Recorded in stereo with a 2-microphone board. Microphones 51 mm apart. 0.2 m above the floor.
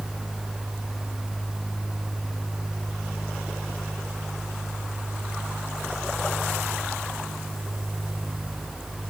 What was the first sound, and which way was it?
Only background noise.